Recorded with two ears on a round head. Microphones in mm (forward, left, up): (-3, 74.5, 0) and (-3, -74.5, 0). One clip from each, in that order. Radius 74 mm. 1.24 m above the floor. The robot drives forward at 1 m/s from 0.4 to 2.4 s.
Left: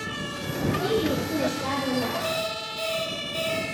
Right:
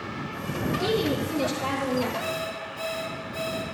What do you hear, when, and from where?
0.8 s a woman speaking: 75° right (ahead or behind), 1.7 m; by 2.1 s 40° right (ahead or behind), 2.5 m
2.2 s an alarm clock: 10° left (ahead or behind), 3.5 m